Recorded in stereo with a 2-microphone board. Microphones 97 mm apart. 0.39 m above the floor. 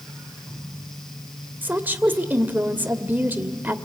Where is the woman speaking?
20° right (ahead or behind), 1.3 m.